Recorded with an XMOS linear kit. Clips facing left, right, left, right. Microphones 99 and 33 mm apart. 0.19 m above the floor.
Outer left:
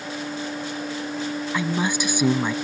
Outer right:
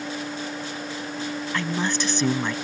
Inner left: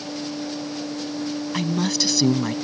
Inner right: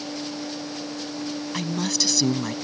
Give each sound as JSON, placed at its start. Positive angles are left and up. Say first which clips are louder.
{"t": 1.5, "sound": "a woman speaking", "louder": "outer left 2 dB, inner left 3 dB", "side_deg": 10}